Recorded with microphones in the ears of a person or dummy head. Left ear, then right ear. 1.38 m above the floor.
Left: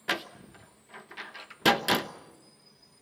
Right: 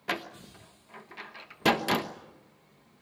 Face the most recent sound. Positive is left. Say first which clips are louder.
# left 2 dB
turn(degrees=10)  # may be behind; listen again after turning